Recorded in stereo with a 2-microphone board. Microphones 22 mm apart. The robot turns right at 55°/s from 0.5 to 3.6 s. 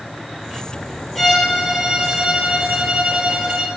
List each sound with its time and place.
1.1 s a violin: 165° left, 4.5 m; by 3.7 s 65° right, 4.5 m